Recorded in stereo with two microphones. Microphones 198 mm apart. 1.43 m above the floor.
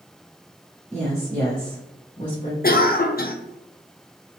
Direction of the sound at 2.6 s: 50° left (ahead or behind).